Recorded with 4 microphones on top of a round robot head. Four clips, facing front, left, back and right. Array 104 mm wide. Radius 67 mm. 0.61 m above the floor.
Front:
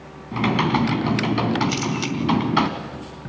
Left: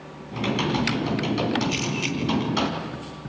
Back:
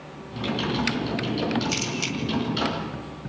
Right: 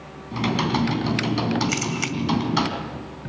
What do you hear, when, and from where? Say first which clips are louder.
0.3 s typing on a keyboard: right 2 dB, front 7 dB; 15° right, 2.5 m
1.7 s a camera shutter: right 1 dB, front 5 dB; 50° right, 1.8 m